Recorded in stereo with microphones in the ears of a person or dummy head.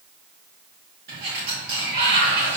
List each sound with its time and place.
1.1 s a sliding door: 55° right (ahead or behind), 2.5 m